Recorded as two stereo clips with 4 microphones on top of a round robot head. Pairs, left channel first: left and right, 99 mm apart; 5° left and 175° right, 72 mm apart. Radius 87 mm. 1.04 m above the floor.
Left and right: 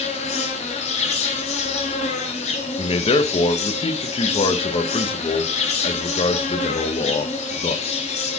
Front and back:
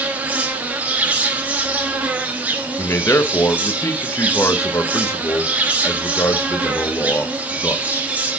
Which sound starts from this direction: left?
An insect, at 0.0 s.